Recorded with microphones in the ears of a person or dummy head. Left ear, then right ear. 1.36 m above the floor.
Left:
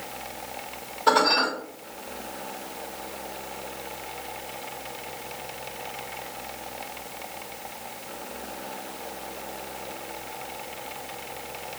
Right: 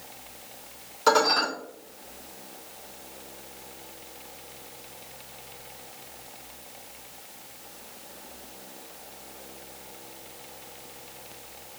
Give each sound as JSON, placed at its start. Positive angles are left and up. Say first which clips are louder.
{"t": 1.1, "sound": "dishes clattering", "louder": "left 1 dB", "side_deg": -70, "distance_m": 1.8}